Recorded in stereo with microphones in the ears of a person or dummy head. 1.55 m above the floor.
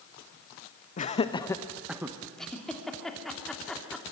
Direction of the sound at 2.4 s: Centre (ahead or behind).